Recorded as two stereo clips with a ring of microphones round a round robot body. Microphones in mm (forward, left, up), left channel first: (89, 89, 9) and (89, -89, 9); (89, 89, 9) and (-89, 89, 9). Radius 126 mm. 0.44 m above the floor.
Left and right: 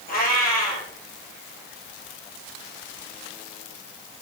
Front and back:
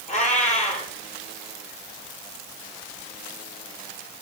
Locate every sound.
0.1 s a cat meowing: 50° left, 8.5 m